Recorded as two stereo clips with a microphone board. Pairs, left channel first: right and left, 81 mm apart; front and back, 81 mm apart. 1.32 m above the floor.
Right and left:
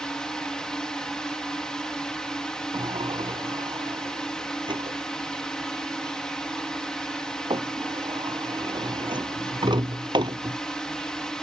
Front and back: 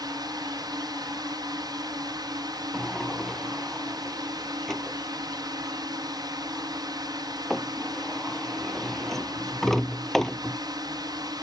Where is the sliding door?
85° left.